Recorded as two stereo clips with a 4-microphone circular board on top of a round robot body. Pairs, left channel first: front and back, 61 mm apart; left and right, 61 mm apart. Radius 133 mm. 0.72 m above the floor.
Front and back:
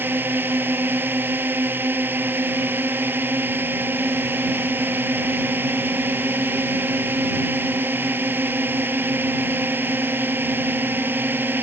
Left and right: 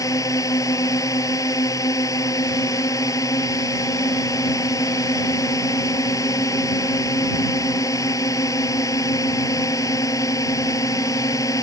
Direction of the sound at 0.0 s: 120° left.